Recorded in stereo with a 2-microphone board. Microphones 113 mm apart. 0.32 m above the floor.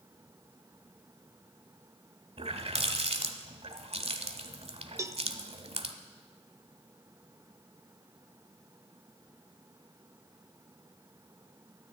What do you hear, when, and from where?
2.4 s a running tap: 65° right (ahead or behind), 1.1 m
5.0 s a cowbell: 25° right (ahead or behind), 0.6 m